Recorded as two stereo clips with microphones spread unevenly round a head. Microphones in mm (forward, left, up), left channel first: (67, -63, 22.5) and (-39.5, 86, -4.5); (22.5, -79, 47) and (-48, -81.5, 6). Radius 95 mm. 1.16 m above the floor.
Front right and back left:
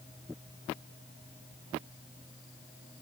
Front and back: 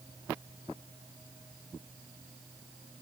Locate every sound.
Only background noise.